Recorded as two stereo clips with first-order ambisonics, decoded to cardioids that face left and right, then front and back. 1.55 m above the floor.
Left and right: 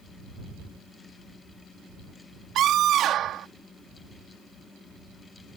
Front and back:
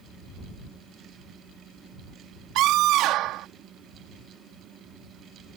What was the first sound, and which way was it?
A scream, 140° right.